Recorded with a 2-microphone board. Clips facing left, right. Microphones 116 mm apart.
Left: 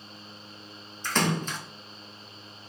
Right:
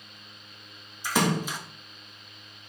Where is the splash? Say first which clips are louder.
Right 2 dB; 10° right (ahead or behind), 0.6 m.